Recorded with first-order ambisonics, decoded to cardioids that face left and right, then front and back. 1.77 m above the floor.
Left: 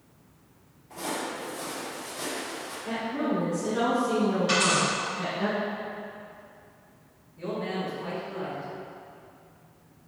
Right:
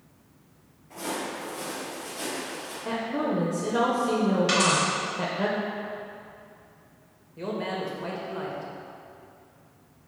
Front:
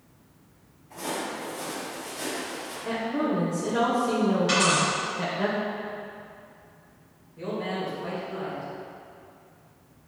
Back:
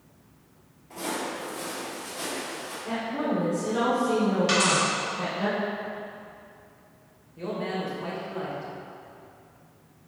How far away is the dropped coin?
About 1.7 m.